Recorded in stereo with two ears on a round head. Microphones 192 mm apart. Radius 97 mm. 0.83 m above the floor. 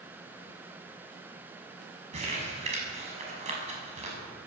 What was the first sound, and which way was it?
Crumpling, 30° right (ahead or behind).